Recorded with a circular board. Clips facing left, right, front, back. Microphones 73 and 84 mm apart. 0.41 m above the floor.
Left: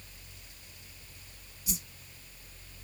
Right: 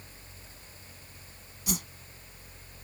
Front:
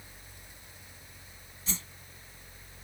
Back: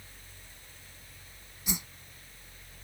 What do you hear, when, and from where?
1.7 s a whoosh: 105° right